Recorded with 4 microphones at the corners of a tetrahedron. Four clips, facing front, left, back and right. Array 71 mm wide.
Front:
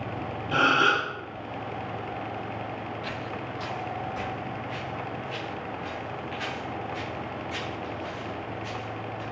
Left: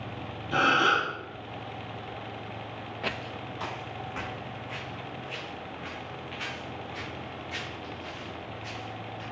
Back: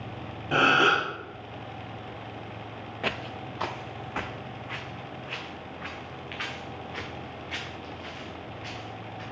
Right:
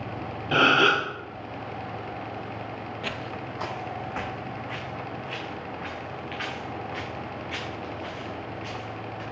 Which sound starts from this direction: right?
A gasp, at 0.5 s.